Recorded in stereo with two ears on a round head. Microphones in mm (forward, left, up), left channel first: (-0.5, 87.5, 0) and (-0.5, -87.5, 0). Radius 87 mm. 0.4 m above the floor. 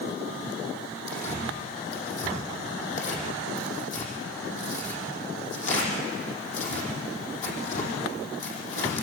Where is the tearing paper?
40° left (ahead or behind), 6 m.